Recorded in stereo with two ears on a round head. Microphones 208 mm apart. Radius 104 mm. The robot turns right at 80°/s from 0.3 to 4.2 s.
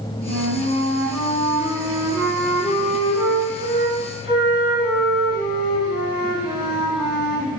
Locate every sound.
0.2 s a flute: 15° left, 1.8 m; by 7.5 s 35° right, 1.8 m